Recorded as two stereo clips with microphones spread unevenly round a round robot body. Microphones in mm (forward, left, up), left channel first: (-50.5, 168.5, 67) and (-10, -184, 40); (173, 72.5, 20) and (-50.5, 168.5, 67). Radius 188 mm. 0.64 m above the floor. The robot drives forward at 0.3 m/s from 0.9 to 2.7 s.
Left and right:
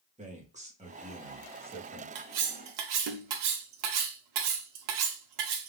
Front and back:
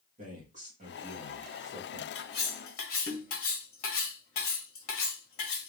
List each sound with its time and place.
0.2 s a man speaking: 140° right, 1.3 m; by 2.0 s 150° right, 1.5 m
2.1 s cutlery clinking: 65° right, 0.8 m; by 5.7 s 80° right, 0.7 m